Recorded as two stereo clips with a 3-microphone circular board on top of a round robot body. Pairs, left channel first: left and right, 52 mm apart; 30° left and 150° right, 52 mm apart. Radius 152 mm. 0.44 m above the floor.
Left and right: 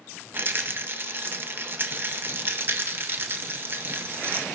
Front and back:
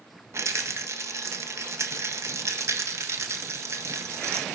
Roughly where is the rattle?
Behind right.